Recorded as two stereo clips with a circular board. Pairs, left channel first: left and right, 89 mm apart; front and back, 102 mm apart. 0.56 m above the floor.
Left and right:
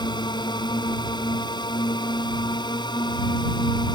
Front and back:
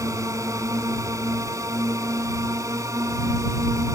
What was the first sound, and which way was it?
A drone, 120° left.